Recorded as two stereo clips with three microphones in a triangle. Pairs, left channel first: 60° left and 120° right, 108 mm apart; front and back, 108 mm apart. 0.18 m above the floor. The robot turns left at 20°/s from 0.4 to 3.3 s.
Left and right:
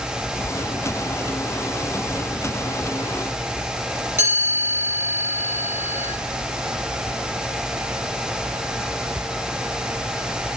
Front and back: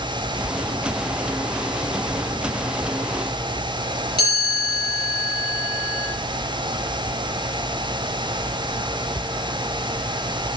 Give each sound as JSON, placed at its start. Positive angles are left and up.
{"t": 4.2, "sound": "a chime", "azimuth_deg": 175, "distance_m": 3.5}